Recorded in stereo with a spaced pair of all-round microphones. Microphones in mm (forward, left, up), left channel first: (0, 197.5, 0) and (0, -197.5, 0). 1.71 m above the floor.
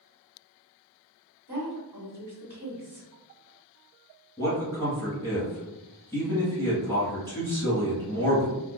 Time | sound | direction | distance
1.5 | a woman speaking | 70° right (ahead or behind) | 1.8 m
4.4 | a man speaking | 10° right (ahead or behind) | 1.3 m